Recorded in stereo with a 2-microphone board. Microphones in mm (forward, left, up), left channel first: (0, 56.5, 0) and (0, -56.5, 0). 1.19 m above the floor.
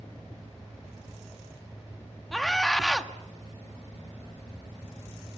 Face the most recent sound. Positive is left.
turn(degrees=0)  # may be behind; listen again after turning